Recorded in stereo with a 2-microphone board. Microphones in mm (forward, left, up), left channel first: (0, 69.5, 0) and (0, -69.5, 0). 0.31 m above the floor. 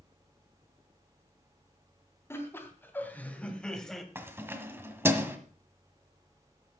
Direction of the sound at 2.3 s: 20° left (ahead or behind).